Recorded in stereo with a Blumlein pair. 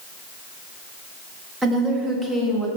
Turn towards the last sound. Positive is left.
turn(degrees=-15)